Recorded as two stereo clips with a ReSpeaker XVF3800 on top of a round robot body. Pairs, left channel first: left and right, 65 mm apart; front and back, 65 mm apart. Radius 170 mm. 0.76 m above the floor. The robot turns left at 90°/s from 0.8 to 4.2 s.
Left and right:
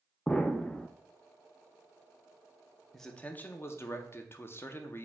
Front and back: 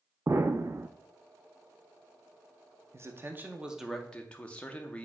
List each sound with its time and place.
0.3 s an explosion: 160° left, 0.5 m; by 0.9 s 155° left, 0.5 m
2.9 s a man speaking: 175° left, 0.8 m; by 5.0 s 60° left, 0.8 m